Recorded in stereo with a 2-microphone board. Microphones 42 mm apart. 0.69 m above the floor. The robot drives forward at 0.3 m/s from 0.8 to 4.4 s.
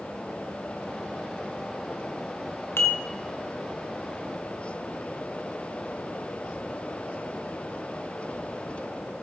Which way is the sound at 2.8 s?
80° left.